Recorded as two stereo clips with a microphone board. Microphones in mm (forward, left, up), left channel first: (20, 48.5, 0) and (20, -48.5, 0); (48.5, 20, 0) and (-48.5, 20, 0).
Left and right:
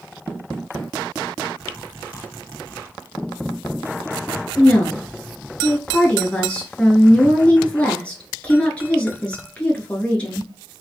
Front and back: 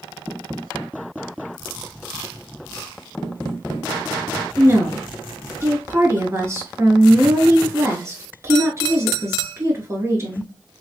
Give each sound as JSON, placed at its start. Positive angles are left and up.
{"t": 4.6, "sound": "a woman speaking", "azimuth_deg": 155, "distance_m": 1.3}